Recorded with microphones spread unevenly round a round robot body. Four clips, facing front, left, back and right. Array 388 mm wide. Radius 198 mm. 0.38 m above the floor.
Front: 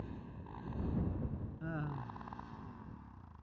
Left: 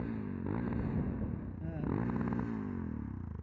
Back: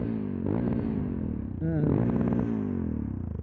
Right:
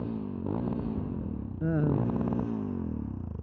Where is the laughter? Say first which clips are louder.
Right 9 dB, back 18 dB; 135° right.